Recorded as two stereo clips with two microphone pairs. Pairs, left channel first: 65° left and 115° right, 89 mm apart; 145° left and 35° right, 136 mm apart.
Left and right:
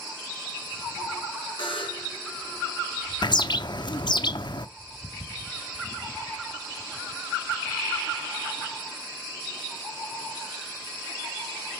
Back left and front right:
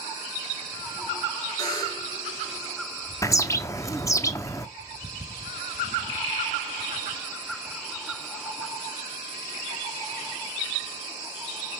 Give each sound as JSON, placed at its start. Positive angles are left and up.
{"t": 1.6, "sound": "a buzzer", "azimuth_deg": 85, "distance_m": 4.5}
{"t": 3.2, "sound": "a bird", "azimuth_deg": 80, "distance_m": 0.7}